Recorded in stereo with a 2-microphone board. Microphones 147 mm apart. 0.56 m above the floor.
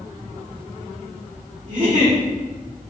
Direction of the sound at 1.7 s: 55° right (ahead or behind).